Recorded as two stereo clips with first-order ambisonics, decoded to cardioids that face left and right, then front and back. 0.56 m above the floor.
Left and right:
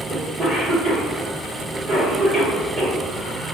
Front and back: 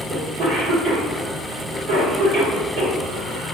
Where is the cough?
160° right, 1.7 m.